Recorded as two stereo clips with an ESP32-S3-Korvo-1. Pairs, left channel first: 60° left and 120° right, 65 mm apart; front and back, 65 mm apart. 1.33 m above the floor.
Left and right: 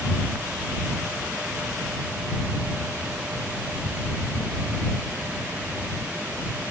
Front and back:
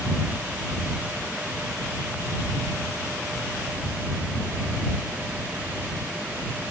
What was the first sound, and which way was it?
Only background noise.